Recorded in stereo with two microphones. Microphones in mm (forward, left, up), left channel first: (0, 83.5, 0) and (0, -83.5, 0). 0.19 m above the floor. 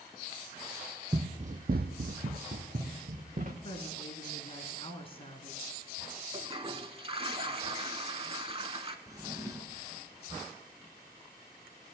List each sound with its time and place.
1.1 s running footsteps: 30° right (ahead or behind), 0.6 m; by 3.5 s 50° right (ahead or behind), 1.5 m
3.6 s a woman speaking: 35° left (ahead or behind), 1.6 m
6.3 s a toilet flushing: 35° right (ahead or behind), 0.6 m
9.1 s a drawer: 20° right (ahead or behind), 1.1 m